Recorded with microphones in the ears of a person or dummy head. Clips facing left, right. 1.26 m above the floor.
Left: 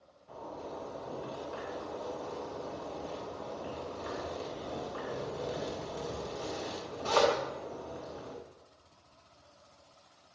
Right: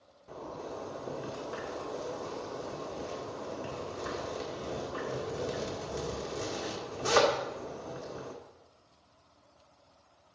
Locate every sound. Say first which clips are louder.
0.3 s a zipper: right 2 dB; 55° right (ahead or behind), 1.9 m